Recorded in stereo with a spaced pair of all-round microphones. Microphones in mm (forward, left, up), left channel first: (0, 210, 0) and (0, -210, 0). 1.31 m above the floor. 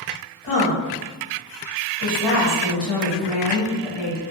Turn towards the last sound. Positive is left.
turn(degrees=80)